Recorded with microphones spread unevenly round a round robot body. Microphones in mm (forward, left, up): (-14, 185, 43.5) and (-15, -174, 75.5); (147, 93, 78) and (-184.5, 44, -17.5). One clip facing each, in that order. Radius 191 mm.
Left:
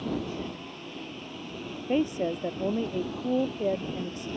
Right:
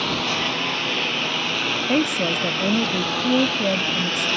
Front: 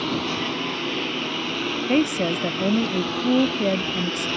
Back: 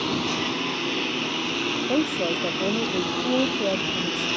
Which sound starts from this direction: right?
A lawn mower, at 0.0 s.